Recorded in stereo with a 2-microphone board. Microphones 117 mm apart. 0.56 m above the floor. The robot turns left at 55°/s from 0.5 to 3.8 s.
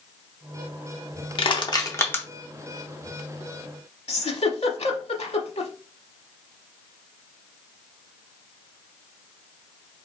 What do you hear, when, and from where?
1.4 s crushing: 50° left (ahead or behind), 0.6 m; by 2.2 s 10° left (ahead or behind), 0.6 m
4.1 s a giggle: 60° left (ahead or behind), 0.7 m